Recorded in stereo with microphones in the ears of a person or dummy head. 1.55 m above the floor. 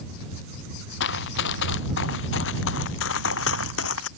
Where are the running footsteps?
65° left (ahead or behind); by 4.1 s 75° left (ahead or behind).